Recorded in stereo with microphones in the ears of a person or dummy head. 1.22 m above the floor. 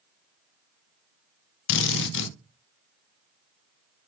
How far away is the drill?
About 0.6 m.